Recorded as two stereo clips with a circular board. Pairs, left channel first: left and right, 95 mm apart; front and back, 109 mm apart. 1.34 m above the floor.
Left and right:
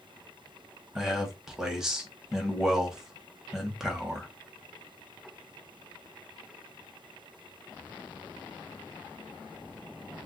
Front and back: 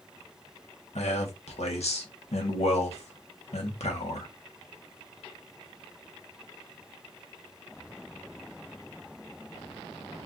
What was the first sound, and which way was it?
A man speaking, 5° right.